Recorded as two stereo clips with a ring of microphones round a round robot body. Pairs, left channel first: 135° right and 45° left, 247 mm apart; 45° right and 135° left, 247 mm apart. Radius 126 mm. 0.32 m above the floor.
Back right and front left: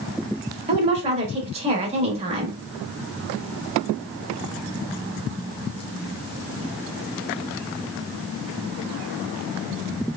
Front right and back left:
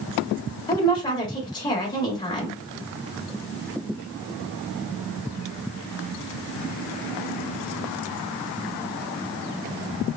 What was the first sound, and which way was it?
A woman speaking, 10° left.